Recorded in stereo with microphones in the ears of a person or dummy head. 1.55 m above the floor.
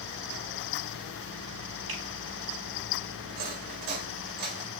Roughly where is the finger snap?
Right.